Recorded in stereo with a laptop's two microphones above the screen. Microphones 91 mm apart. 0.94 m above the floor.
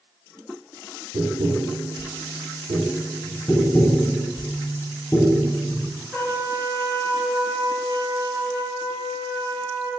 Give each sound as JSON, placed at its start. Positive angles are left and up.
{"t": 1.1, "sound": "tapping", "side_deg": -55, "distance_m": 0.7}
{"t": 3.5, "sound": "tapping", "side_deg": 20, "distance_m": 0.6}
{"t": 6.1, "sound": "a trumpet", "side_deg": 10, "distance_m": 1.4}